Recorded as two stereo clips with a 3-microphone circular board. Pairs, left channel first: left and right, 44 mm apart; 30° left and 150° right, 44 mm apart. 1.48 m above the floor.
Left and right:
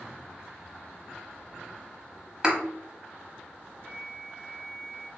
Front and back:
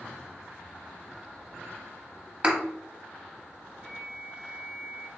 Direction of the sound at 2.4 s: 140° right.